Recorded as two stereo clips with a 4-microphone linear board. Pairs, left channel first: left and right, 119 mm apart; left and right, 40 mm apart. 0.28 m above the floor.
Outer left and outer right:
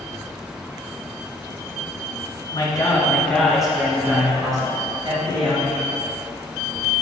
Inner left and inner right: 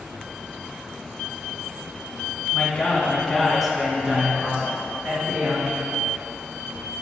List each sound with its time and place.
2.5 s a man speaking: 40° left (ahead or behind), 2.5 m; by 5.8 s 50° right (ahead or behind), 4.5 m